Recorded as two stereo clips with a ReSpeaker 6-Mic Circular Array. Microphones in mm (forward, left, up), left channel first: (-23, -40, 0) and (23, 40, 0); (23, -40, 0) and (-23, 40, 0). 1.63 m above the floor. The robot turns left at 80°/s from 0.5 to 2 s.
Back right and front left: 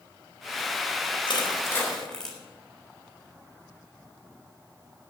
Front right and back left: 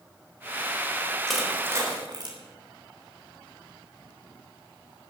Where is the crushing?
145° right, 3.5 m; by 2.4 s 155° left, 3.5 m.